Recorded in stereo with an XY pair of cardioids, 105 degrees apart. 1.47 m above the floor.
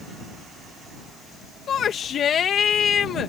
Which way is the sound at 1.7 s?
60° left.